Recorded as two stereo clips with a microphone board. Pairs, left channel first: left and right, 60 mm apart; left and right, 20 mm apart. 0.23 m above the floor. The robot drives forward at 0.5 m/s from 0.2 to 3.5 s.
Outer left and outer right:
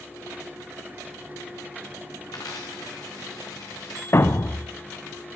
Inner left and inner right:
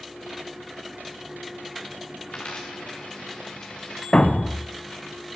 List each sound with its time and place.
2.3 s a dropped coin: 75° left (ahead or behind), 3 m; by 4.0 s 65° left (ahead or behind), 3 m
4.1 s a thud: 45° left (ahead or behind), 0.7 m